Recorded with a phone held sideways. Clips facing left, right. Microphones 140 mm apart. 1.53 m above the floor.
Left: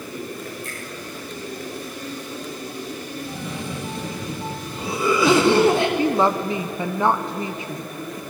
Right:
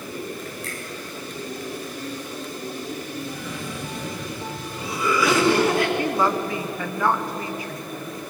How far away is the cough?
About 2.5 m.